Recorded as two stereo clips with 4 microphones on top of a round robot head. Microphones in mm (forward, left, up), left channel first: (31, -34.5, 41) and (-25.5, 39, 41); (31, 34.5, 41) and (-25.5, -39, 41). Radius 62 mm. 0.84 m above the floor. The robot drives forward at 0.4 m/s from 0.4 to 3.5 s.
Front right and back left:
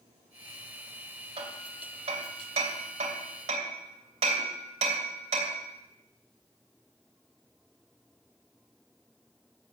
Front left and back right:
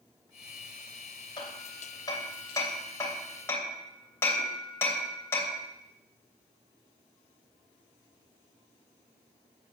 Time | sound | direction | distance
1.4 | hammering | 100° left | 2.5 m